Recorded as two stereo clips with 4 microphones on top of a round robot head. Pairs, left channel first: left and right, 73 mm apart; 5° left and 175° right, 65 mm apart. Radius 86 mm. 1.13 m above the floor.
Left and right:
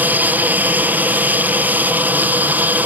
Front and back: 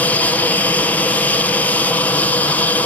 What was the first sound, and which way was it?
An aircraft, 45° right.